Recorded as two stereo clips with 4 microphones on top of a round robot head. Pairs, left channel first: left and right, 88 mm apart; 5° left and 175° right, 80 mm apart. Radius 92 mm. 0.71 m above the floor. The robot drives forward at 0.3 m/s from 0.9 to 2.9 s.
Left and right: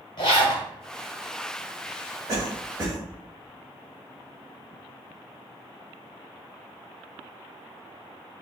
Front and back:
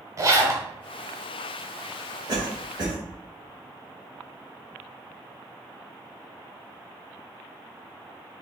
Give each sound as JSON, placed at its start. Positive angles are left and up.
{"t": 0.2, "sound": "a zipper", "azimuth_deg": 135, "distance_m": 1.0}
{"t": 2.3, "sound": "a cough", "azimuth_deg": -135, "distance_m": 1.6}